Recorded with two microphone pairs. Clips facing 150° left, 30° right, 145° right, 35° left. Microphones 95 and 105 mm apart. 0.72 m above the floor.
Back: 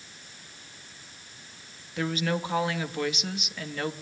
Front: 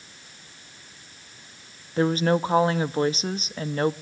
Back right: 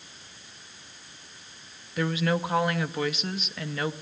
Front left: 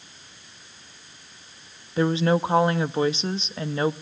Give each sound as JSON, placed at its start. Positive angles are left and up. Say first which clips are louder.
{"t": 2.0, "sound": "a woman speaking", "louder": "front 7 dB, front left 6 dB", "azimuth_deg": -5, "distance_m": 0.8}